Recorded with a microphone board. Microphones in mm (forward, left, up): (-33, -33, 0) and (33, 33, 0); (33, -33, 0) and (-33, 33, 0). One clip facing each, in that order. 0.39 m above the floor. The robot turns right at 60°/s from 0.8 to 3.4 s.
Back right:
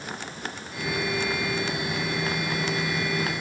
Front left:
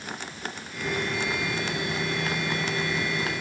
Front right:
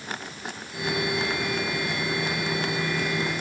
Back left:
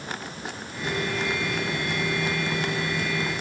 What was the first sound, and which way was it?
Only background noise.